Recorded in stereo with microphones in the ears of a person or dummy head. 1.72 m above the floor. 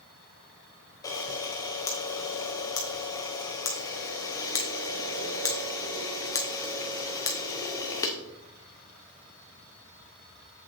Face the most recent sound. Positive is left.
turn(degrees=15)  # may be behind; listen again after turning